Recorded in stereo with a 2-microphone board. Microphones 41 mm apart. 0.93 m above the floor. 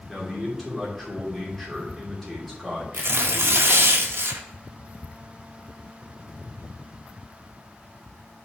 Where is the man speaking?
5° left (ahead or behind), 2.5 m.